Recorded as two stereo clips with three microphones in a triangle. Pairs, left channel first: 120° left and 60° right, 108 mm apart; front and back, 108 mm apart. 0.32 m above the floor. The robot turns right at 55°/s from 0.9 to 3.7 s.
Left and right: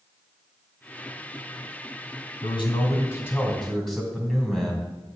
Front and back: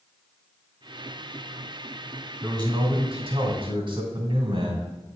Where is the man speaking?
130° left, 2 m; by 4.9 s 155° right, 2 m.